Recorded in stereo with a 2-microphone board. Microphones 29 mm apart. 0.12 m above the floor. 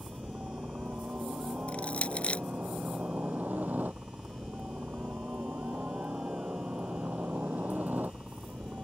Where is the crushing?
40° left (ahead or behind).